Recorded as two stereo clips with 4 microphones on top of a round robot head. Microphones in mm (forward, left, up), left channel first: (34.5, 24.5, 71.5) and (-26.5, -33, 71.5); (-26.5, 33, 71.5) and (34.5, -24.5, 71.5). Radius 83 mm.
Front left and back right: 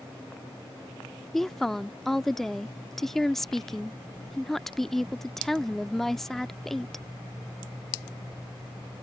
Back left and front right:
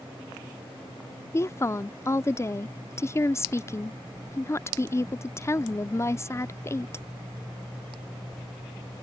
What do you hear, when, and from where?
1.3 s a woman speaking: 125° left